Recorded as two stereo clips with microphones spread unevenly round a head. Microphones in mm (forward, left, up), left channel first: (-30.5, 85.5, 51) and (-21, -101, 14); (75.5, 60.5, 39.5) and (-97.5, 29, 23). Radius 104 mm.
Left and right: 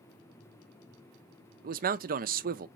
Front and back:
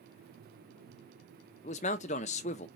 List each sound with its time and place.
1.6 s a man speaking: 45° right, 0.6 m